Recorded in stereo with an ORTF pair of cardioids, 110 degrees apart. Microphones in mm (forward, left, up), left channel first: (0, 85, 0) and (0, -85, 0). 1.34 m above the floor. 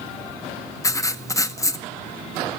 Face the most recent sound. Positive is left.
turn(degrees=20)